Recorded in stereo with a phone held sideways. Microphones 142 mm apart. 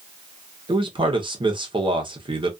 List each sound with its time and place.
0.7 s a man speaking: 35° right (ahead or behind), 0.8 m